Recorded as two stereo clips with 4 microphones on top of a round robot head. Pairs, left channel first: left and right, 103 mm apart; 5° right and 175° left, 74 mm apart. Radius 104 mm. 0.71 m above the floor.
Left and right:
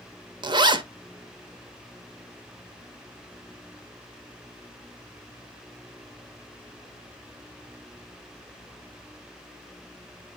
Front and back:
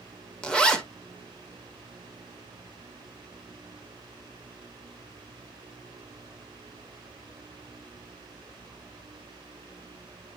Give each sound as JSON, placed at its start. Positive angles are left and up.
{"t": 0.4, "sound": "a zipper", "azimuth_deg": -80, "distance_m": 1.5}